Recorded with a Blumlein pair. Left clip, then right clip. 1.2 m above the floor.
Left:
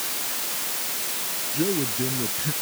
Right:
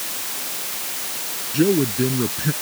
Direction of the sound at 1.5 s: 70° right.